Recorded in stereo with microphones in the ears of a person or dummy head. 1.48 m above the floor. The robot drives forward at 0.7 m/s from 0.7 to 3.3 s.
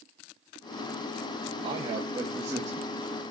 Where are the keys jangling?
No keys jangling in this recording.